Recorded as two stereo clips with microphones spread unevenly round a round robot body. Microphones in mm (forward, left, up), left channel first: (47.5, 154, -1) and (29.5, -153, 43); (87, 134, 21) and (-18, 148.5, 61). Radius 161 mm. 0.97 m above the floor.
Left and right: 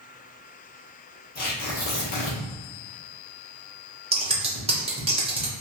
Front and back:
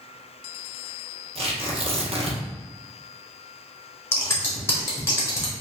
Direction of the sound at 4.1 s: 20° right.